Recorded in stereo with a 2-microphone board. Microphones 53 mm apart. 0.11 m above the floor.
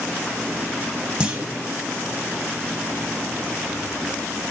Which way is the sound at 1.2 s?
15° right (ahead or behind).